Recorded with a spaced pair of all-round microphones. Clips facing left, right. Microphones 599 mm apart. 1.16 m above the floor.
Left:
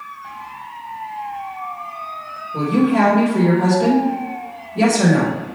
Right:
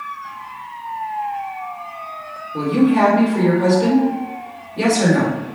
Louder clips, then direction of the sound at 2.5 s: Right 1 dB; 70° left (ahead or behind).